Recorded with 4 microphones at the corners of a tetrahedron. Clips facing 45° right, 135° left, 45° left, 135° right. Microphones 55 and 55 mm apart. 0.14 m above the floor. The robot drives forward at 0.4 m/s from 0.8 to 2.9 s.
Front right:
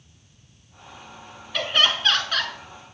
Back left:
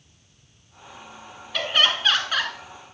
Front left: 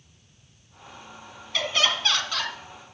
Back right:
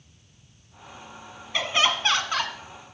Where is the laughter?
135° right, 1.2 m; by 2.5 s 155° right, 1.3 m.